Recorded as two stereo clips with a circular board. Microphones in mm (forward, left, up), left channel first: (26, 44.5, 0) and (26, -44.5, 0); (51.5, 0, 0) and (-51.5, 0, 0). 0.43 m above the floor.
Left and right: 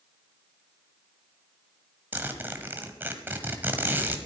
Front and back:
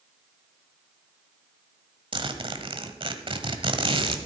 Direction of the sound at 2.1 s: 155° right.